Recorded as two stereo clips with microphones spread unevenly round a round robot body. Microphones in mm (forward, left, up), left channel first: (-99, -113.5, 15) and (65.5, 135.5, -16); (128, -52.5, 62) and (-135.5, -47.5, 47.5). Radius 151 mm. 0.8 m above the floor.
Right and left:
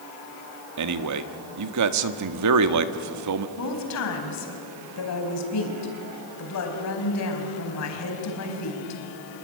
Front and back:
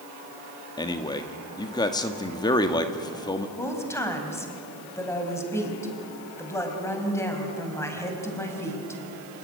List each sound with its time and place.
0.8 s a man speaking: 75° left, 1.4 m
3.6 s a woman speaking: 80° right, 4.5 m